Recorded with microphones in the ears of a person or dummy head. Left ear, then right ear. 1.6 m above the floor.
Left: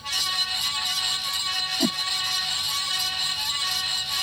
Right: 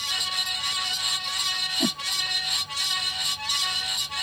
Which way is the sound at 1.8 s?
5° left (ahead or behind).